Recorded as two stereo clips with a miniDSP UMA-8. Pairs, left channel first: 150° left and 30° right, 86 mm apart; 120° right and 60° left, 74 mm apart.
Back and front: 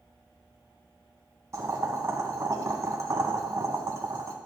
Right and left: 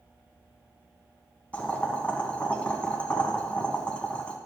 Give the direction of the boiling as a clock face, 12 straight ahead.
2 o'clock.